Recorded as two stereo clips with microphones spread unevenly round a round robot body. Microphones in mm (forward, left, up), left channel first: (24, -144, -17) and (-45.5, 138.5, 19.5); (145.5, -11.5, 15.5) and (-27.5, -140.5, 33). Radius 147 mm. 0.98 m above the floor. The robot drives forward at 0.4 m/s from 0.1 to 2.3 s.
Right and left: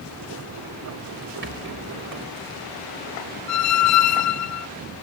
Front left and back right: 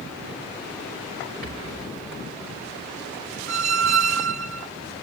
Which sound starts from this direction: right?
A squeak, at 3.5 s.